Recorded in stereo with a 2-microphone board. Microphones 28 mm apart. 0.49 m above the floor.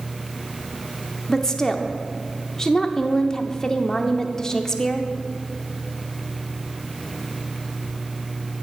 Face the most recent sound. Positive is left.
turn(degrees=20)  # may be behind; listen again after turning